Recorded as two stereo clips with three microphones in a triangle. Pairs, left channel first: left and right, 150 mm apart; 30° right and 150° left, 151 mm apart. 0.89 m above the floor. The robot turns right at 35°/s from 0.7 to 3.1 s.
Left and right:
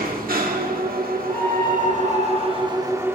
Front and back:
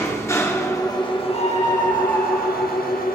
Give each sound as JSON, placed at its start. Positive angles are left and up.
{"t": 0.0, "sound": "an engine running", "azimuth_deg": -100, "distance_m": 1.7}
{"t": 1.3, "sound": "a scream", "azimuth_deg": 15, "distance_m": 7.0}